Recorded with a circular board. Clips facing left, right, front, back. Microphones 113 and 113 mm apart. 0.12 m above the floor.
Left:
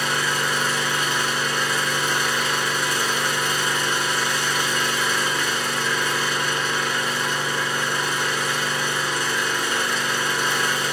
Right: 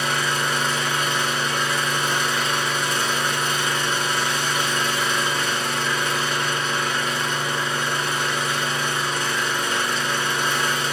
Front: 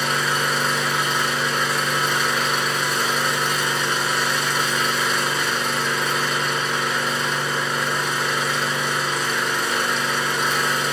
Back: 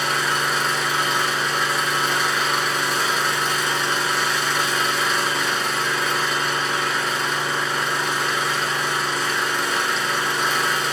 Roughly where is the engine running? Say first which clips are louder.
Even, even; right.